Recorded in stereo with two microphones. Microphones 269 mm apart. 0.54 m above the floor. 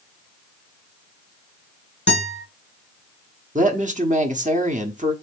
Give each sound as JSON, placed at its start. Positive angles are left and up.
{"t": 2.1, "sound": "a guitar", "side_deg": 40, "distance_m": 3.5}
{"t": 3.5, "sound": "a woman speaking", "side_deg": -30, "distance_m": 1.2}